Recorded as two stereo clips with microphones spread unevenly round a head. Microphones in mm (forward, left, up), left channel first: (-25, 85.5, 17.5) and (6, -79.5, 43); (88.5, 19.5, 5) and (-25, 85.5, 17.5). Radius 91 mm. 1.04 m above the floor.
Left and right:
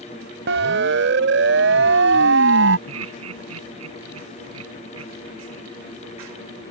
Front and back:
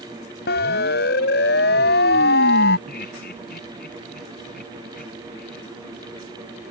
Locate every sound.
0.5 s a siren: 50° right; by 2.8 s 55° right
2.9 s laughter: 80° right